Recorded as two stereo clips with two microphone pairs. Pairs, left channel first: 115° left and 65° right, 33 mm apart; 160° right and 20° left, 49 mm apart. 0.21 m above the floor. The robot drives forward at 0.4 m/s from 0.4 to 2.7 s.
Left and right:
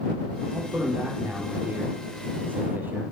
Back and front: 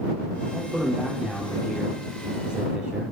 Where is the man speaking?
45° right, 8 m; by 3.1 s 50° right, 7.5 m.